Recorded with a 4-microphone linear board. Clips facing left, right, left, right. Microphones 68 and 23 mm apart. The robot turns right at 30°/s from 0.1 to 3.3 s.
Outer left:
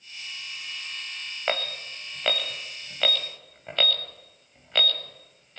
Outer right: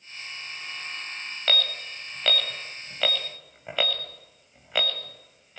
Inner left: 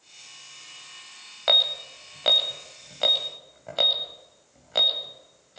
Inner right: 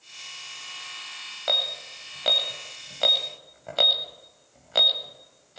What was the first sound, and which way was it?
An alarm, 20° left (ahead or behind).